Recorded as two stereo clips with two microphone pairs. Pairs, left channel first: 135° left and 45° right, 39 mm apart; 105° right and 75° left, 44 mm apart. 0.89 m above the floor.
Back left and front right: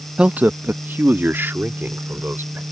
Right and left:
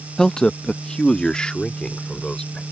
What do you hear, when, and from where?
0.2 s a man speaking: 50° right; by 2.6 s 35° right